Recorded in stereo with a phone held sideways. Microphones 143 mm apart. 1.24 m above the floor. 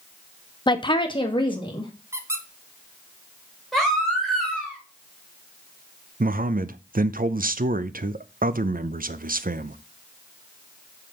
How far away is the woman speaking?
About 0.6 m.